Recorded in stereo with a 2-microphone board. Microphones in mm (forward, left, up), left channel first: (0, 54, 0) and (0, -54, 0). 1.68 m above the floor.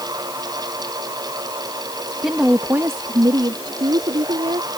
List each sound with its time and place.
2.2 s a woman speaking: 5° right (ahead or behind); by 4.7 s 65° right (ahead or behind)